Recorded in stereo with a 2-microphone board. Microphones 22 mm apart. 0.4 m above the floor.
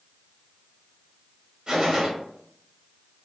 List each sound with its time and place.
1.7 s a gunshot: 35° right (ahead or behind), 0.7 m